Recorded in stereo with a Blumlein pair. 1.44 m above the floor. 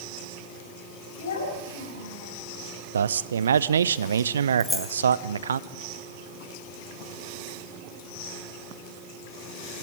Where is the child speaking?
60° left, 7 m.